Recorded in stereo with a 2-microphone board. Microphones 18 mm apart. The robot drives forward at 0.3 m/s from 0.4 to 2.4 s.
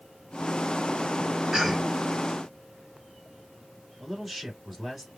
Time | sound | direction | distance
1.5 | a cough | 25° right (ahead or behind) | 1.9 m
4.0 | a man speaking | 10° right (ahead or behind) | 2 m